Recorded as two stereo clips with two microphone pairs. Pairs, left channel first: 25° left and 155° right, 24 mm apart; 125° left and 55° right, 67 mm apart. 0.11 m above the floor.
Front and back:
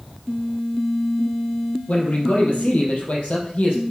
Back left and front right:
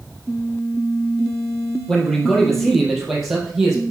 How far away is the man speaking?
About 2.5 m.